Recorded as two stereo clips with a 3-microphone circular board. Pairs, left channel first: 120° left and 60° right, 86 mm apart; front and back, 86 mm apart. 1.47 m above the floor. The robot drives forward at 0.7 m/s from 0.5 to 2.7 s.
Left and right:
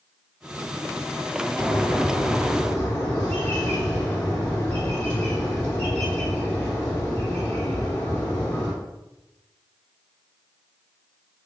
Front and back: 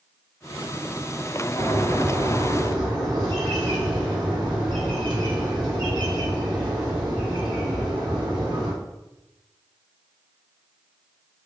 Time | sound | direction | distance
1.6 | a bird | 165° right | 1.4 m